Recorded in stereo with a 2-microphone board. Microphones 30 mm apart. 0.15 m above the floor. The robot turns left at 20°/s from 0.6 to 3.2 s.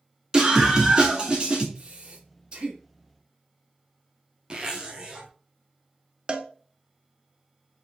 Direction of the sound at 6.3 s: 30° right (ahead or behind).